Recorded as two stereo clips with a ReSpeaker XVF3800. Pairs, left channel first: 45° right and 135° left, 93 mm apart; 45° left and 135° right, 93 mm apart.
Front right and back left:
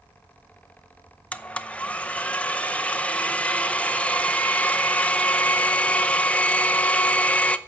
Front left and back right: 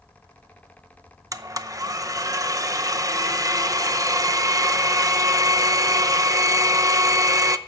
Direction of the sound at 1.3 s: 110° right.